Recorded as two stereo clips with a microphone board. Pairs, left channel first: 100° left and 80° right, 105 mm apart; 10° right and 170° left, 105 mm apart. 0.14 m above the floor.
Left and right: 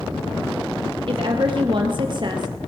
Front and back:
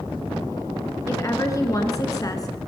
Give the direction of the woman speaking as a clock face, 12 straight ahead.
2 o'clock.